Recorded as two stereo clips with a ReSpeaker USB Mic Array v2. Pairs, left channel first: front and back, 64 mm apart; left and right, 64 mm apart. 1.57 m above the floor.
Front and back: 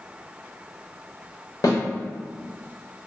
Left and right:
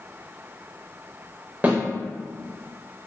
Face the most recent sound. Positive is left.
turn(degrees=-25)